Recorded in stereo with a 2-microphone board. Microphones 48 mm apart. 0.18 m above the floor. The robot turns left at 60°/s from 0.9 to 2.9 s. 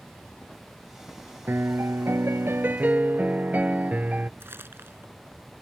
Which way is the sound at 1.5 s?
55° right.